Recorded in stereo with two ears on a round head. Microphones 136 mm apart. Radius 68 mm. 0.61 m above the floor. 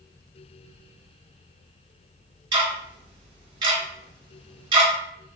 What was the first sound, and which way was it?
Ticking, 35° right (ahead or behind).